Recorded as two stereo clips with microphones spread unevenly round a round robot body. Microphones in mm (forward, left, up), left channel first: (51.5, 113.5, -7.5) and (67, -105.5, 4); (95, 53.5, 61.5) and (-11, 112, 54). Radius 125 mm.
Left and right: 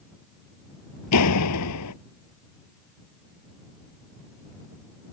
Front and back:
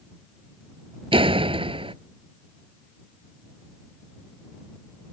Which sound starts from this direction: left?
A door slam, at 1.1 s.